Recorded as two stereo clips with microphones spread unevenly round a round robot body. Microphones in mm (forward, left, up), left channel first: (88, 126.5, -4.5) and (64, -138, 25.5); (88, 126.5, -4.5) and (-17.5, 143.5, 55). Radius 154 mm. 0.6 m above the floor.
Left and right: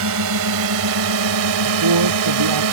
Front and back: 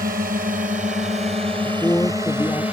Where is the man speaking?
90° right.